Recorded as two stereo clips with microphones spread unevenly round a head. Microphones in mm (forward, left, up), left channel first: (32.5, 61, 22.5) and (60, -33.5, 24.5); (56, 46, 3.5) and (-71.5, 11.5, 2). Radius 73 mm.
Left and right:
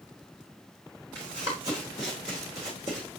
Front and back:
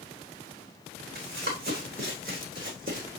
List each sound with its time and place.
1.1 s running footsteps: 140° right, 4 m; by 3.2 s 135° right, 3 m